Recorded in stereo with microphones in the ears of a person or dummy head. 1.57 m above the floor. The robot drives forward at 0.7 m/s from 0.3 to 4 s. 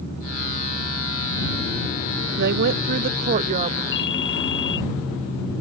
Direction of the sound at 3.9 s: 60° left (ahead or behind).